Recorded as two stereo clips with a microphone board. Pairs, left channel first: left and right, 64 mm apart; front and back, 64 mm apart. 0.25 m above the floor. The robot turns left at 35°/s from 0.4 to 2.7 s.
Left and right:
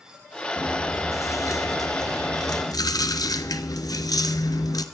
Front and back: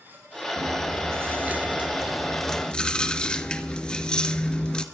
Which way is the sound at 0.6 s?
150° left.